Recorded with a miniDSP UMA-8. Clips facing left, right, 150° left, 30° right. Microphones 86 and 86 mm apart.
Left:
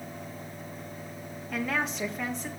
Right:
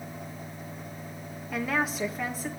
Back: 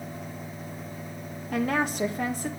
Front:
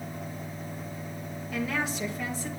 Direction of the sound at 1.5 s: 175° right.